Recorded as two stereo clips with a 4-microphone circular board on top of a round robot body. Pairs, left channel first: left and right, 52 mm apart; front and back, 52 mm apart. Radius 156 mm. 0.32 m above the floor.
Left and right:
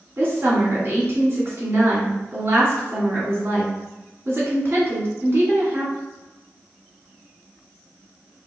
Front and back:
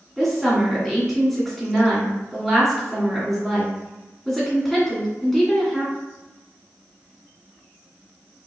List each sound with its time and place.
0.2 s a woman speaking: 95° right, 1.9 m